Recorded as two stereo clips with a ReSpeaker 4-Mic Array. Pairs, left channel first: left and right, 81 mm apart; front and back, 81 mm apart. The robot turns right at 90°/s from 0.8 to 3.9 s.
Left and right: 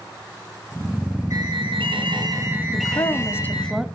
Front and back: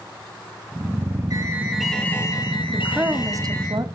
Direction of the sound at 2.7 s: 90° left.